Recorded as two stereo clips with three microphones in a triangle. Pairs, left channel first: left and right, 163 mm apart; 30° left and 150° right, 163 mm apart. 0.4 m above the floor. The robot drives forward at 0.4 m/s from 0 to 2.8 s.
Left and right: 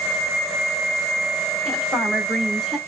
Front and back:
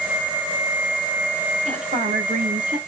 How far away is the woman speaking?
About 1.4 m.